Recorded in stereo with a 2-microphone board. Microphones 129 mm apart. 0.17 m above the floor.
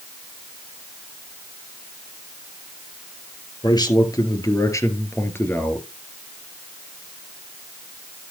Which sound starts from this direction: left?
A man speaking, at 3.6 s.